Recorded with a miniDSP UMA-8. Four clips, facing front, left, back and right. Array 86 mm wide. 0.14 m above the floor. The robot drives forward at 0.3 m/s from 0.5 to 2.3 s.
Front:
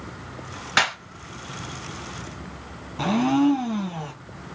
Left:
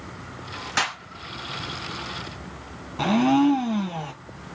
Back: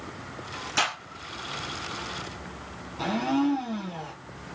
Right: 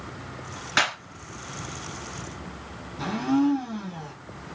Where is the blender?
70° left, 0.6 m.